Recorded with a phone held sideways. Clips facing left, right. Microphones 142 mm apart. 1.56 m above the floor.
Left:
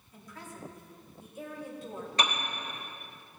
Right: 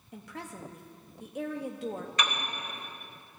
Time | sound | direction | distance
0.1 | a woman speaking | 75° right (ahead or behind) | 1.0 m
2.2 | a piano | 30° left (ahead or behind) | 1.4 m